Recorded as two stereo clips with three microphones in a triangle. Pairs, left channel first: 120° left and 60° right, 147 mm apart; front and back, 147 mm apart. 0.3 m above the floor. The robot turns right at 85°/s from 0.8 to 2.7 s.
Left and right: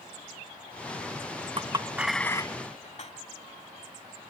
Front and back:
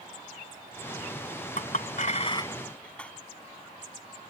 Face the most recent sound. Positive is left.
turn(degrees=80)